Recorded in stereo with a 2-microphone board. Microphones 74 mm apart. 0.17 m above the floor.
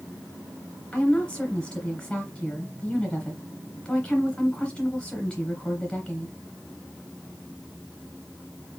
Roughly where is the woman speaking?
Centre.